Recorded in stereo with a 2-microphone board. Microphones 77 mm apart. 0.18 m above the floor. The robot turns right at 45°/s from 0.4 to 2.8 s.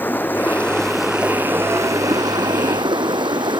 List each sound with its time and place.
0.0 s running water: 155° left; by 3.6 s 95° right